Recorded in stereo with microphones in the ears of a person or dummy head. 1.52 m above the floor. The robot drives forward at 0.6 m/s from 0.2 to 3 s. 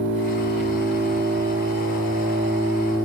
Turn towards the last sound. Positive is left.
turn(degrees=-80)